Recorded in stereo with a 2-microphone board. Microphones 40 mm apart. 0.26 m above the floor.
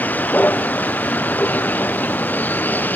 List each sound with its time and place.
0.0 s a vehicle: 50° left (ahead or behind)